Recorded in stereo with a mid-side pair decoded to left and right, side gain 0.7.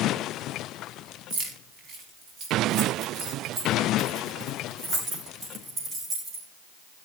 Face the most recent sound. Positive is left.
turn(degrees=-30)